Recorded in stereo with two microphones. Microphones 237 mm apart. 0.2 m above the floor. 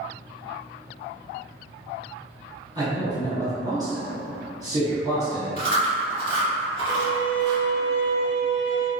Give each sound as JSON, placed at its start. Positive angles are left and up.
{"t": 2.8, "sound": "a man speaking", "side_deg": -15, "distance_m": 1.5}
{"t": 5.6, "sound": "chewing", "side_deg": 35, "distance_m": 1.7}
{"t": 6.9, "sound": "a violin", "side_deg": -50, "distance_m": 0.6}